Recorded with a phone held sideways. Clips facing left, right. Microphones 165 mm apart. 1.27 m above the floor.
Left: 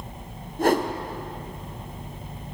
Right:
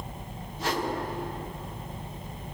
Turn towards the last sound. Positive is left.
turn(degrees=50)  # may be behind; listen again after turning